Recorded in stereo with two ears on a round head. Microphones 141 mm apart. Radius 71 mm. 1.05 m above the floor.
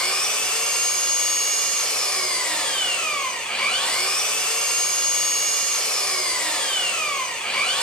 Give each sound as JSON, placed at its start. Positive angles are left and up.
{"t": 0.0, "sound": "an engine running", "side_deg": 5, "distance_m": 2.5}